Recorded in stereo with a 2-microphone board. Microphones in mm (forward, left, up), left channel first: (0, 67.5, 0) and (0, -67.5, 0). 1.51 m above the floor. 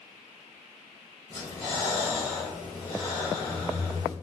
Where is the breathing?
25° left (ahead or behind), 1.7 m.